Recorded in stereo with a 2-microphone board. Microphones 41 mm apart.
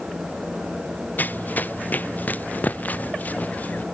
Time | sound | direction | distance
1.2 | running footsteps | 45° left (ahead or behind) | ?